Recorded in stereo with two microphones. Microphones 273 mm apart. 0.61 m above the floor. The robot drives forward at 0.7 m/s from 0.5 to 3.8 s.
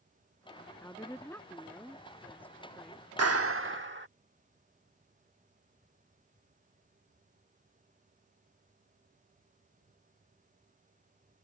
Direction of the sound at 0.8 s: 10° left (ahead or behind).